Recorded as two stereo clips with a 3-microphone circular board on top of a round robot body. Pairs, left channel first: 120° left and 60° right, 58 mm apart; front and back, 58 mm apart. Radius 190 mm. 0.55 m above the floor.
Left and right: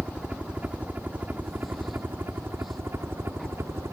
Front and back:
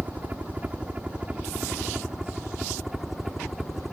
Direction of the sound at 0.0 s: 130° right.